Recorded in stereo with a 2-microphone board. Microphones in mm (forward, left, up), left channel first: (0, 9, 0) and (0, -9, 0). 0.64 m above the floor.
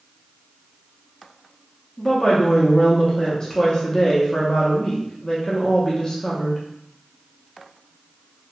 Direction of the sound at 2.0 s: 40° left (ahead or behind).